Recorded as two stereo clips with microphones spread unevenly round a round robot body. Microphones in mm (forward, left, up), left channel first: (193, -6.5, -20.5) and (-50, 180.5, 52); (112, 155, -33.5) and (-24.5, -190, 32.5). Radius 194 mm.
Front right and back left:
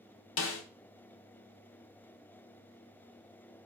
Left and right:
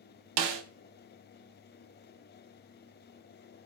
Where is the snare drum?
85° right, 0.8 m.